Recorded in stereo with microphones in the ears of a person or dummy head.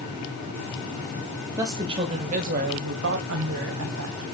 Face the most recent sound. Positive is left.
turn(degrees=-85)